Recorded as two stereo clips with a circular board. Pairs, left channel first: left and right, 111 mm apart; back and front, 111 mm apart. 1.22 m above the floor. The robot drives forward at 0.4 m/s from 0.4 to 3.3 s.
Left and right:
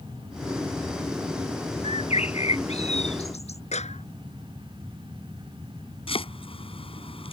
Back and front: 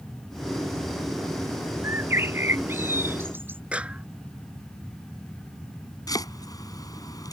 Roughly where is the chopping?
Behind left.